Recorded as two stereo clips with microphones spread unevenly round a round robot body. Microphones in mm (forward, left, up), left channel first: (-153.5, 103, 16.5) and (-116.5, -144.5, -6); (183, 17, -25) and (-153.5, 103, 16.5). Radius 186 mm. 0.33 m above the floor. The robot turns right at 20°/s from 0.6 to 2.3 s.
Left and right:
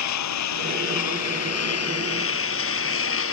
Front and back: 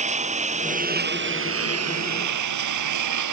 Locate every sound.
0.0 s a lawn mower: 95° left; by 3.3 s 130° left